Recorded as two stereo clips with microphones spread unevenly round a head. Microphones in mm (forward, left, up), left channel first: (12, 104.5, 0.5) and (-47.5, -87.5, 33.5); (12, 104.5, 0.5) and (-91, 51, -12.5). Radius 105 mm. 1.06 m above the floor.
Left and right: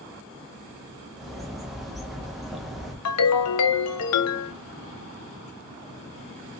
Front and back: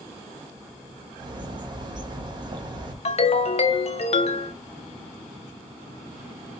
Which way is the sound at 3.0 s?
60° left.